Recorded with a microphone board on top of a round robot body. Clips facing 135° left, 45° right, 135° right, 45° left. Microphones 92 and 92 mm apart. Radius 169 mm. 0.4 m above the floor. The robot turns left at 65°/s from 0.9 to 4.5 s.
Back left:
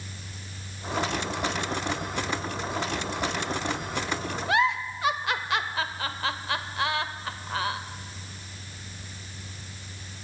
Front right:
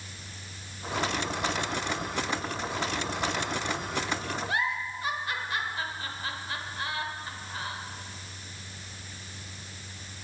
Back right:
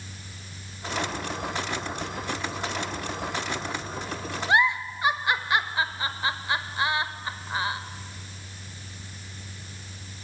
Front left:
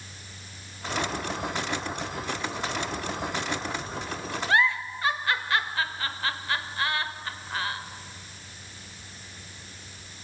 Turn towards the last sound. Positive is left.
turn(degrees=150)